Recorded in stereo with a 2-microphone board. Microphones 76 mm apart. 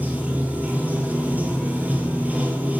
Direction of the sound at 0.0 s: 20° right (ahead or behind).